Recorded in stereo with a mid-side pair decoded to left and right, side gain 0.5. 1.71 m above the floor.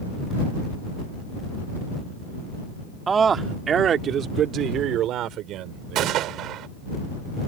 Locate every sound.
3.1 s a man speaking: 35° right; by 6.4 s 80° right
6.0 s a gunshot: 70° right